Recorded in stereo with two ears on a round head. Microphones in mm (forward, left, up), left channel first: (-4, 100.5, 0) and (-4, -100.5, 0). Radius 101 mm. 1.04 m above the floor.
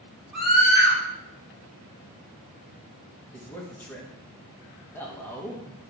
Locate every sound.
0.3 s a scream: centre (ahead or behind), 3.5 m
3.3 s a man speaking: 10° left (ahead or behind), 1.3 m